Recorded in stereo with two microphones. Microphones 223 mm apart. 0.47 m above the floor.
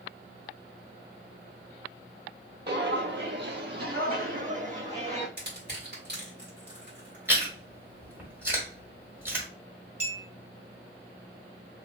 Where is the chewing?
10° right (ahead or behind), 1.8 m.